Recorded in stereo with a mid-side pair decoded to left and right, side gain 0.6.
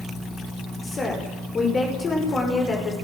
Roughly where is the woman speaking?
Ahead left.